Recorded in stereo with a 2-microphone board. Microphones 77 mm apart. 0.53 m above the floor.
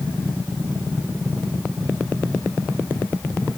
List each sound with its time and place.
Only background noise.